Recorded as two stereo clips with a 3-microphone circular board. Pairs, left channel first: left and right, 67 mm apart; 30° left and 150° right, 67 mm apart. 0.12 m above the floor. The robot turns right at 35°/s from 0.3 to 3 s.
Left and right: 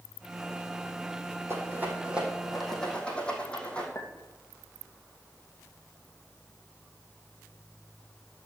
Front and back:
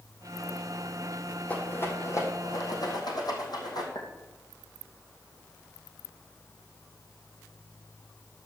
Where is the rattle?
35° right, 3 m; by 3.9 s 15° left, 3 m.